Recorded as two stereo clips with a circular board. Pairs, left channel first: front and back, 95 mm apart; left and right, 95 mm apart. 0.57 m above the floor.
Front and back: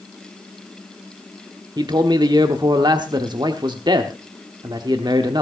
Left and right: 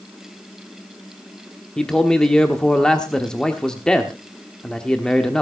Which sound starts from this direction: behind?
A man speaking, at 1.8 s.